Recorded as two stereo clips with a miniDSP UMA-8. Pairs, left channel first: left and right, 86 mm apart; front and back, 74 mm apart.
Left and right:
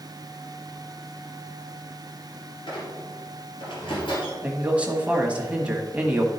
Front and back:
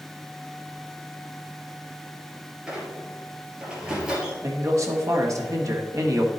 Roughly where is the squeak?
Left.